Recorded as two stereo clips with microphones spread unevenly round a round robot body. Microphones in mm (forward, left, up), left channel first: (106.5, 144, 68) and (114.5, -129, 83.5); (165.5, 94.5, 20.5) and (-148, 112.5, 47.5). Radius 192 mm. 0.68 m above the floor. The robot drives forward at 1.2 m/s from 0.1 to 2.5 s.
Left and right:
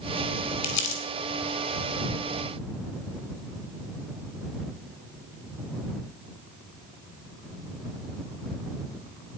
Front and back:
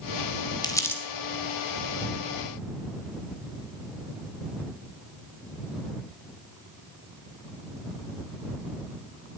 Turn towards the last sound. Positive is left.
turn(degrees=115)